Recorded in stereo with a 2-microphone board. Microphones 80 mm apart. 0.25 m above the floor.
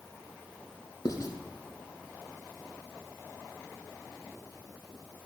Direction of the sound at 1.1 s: 60° left (ahead or behind).